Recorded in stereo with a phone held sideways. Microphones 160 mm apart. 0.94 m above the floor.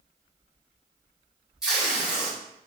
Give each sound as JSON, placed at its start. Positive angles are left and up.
{"t": 1.6, "sound": "tape being pulled", "side_deg": -5, "distance_m": 1.9}